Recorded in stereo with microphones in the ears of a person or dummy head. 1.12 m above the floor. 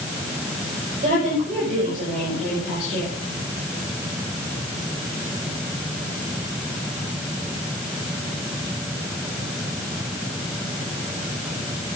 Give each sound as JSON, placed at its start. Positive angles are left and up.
{"t": 1.0, "sound": "a woman speaking", "side_deg": -45, "distance_m": 6.5}